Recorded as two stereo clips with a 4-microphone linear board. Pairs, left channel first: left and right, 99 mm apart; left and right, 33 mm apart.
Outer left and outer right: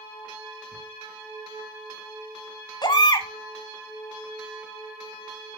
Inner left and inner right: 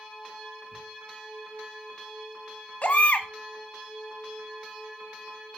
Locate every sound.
0.7 s ticking: 40° right (ahead or behind), 4 m
2.8 s a baby crying: 45° left (ahead or behind), 1.0 m